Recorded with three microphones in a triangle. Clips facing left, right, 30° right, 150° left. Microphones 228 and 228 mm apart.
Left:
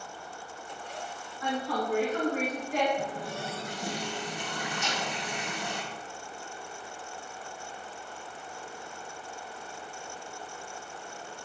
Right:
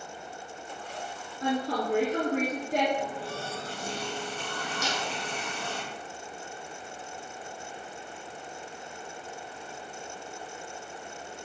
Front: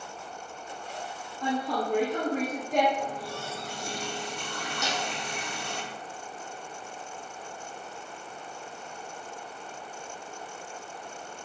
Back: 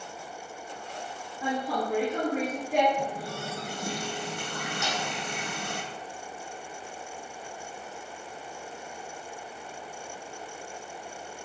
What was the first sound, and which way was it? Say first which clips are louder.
A woman speaking: right 3 dB, front 1 dB; 130° right.